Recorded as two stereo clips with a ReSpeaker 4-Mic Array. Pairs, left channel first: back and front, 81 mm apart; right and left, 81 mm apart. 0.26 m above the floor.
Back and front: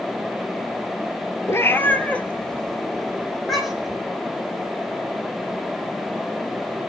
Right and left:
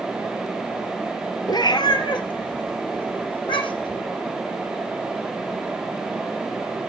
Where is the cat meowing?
125° right, 1.0 m; by 4.0 s 85° right, 2.5 m.